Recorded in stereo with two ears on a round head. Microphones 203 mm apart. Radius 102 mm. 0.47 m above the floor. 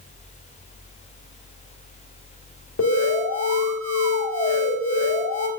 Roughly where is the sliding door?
I don't hear a sliding door.